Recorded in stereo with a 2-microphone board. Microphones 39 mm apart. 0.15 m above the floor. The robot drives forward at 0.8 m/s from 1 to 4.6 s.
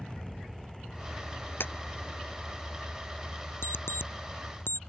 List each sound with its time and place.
0.0 s an aircraft: 5° right (ahead or behind); by 4.9 s 5° left (ahead or behind)
1.6 s a clap: 65° left (ahead or behind); by 1.7 s 60° left (ahead or behind)
3.6 s an alarm clock: 75° left (ahead or behind); by 4.8 s 65° left (ahead or behind)